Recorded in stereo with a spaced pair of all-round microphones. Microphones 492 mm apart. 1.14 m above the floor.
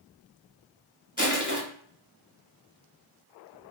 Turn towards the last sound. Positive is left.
turn(degrees=15)  # may be behind; listen again after turning